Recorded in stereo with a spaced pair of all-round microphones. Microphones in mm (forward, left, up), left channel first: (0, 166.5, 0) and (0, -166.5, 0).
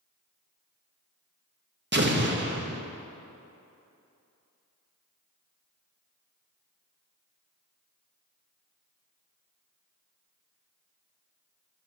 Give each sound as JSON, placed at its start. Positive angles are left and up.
{"t": 1.9, "sound": "an explosion", "side_deg": -35, "distance_m": 0.9}